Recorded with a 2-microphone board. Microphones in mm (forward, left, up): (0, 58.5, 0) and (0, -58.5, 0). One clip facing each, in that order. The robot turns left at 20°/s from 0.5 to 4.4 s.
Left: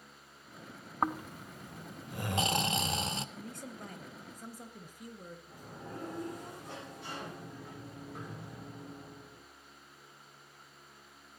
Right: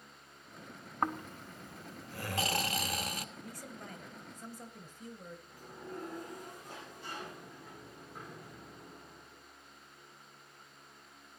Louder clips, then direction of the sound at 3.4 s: Left 2 dB; 30° left (ahead or behind).